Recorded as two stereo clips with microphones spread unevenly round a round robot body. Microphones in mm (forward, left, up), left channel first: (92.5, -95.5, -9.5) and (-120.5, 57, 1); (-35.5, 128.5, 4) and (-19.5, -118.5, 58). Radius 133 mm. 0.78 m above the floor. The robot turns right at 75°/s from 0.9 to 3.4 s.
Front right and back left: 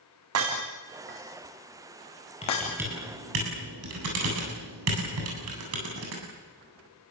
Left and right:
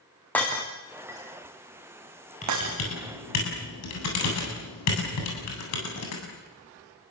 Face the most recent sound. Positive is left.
turn(degrees=105)